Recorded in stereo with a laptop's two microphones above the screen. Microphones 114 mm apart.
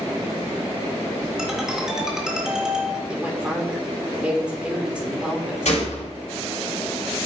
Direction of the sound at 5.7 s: 90° left.